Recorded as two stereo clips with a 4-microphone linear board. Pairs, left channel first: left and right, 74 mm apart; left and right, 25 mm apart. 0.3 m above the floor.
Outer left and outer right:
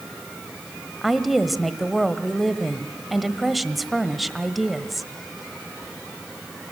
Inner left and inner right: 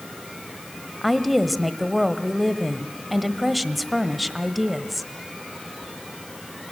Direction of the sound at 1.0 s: Centre (ahead or behind).